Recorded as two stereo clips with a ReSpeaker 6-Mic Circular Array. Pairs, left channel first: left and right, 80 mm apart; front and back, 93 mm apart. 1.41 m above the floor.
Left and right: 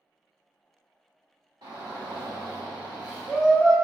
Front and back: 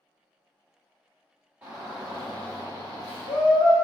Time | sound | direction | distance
1.6 | a shout | 110° right | 0.6 m